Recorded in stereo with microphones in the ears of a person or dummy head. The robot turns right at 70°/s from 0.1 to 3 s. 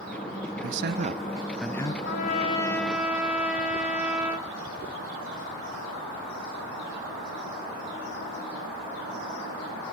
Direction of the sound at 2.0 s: 120° left.